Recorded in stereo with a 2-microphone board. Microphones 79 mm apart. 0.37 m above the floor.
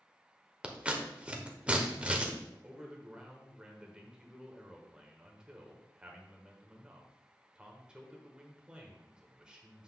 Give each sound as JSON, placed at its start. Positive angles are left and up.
{"t": 0.6, "sound": "scissors", "side_deg": -15, "distance_m": 0.8}
{"t": 2.6, "sound": "a man speaking", "side_deg": -10, "distance_m": 1.2}